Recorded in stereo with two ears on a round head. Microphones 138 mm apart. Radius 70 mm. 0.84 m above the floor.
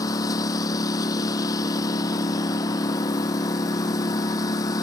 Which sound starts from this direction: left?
A lawn mower, at 0.0 s.